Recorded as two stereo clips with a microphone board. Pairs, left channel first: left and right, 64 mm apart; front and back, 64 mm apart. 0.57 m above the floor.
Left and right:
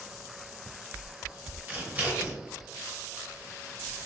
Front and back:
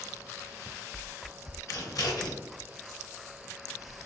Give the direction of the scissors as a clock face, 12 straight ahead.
1 o'clock.